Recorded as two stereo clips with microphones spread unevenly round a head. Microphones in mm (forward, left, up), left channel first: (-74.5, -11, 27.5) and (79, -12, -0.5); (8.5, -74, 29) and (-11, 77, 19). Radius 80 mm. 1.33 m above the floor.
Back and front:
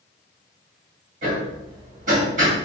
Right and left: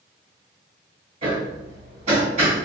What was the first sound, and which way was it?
Hammering, 50° left.